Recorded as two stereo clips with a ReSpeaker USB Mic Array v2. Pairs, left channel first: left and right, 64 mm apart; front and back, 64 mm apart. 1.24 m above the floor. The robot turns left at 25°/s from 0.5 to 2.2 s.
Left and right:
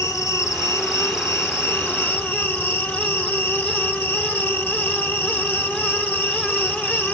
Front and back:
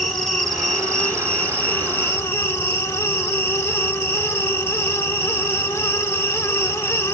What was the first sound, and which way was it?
An insect, 90° left.